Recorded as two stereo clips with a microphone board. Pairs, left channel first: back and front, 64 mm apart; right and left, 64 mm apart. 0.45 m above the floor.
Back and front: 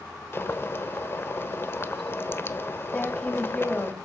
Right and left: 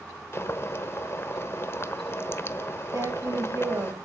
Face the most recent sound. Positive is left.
turn(degrees=110)